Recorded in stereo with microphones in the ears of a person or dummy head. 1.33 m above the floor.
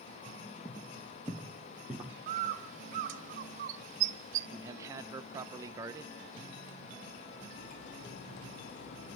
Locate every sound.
0.7 s footsteps: 10° left (ahead or behind), 1.5 m; by 2.1 s 10° right (ahead or behind), 2 m
2.3 s a bird: 45° right (ahead or behind), 1.1 m
4.5 s a man speaking: 15° right (ahead or behind), 1.0 m
7.5 s cutlery clinking: 65° left (ahead or behind), 6.5 m